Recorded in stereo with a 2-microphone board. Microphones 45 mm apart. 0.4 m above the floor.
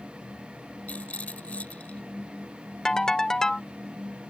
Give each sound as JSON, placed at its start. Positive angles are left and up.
{"t": 0.9, "sound": "a rattle", "side_deg": 35}
{"t": 2.9, "sound": "a ringtone", "side_deg": 15}